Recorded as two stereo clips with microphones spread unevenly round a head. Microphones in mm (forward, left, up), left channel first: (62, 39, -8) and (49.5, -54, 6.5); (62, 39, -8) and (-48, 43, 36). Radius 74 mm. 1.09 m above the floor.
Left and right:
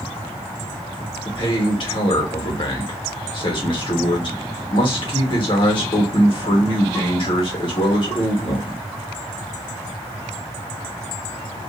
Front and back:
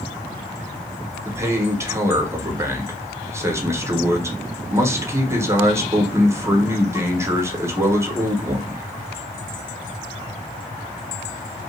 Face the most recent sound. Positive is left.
turn(degrees=100)